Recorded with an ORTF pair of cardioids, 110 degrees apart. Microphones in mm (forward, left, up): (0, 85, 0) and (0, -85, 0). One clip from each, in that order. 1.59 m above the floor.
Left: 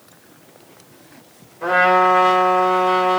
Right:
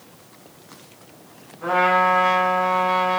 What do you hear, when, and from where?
1.6 s a trumpet: 55° left, 3 m